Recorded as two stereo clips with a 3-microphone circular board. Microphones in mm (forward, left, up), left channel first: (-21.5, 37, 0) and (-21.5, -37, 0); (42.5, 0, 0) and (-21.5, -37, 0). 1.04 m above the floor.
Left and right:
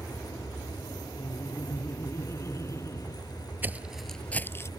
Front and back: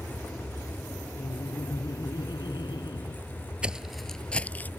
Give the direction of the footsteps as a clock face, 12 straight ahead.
3 o'clock.